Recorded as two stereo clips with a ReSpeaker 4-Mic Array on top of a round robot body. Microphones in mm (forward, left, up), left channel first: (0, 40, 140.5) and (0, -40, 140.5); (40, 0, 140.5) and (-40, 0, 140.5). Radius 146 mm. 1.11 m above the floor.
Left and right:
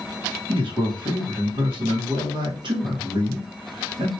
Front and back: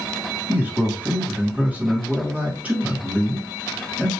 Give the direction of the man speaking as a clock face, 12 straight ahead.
4 o'clock.